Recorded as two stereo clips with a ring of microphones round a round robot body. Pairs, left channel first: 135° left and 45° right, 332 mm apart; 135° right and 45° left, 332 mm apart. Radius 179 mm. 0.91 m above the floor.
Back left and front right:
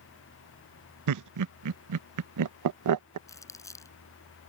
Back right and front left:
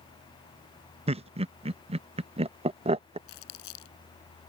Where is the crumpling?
145° right.